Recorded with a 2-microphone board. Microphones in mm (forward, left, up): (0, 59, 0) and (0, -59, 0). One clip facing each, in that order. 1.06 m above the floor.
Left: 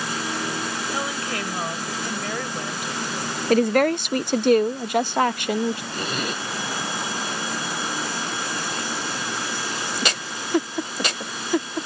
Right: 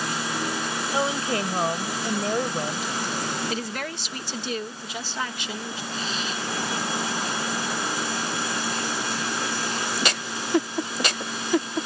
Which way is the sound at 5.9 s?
60° left (ahead or behind).